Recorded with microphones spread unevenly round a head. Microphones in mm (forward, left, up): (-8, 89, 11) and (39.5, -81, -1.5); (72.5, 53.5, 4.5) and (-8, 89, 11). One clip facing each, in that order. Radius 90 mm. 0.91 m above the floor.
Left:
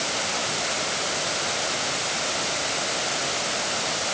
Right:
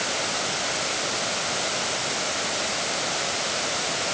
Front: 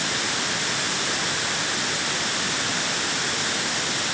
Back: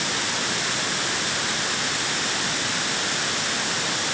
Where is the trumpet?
I don't hear a trumpet.